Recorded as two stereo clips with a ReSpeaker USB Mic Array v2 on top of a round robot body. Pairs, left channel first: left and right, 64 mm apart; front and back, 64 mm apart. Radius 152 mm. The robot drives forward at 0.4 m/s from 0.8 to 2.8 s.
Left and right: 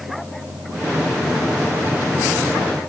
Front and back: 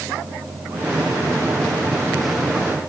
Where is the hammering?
I don't hear hammering.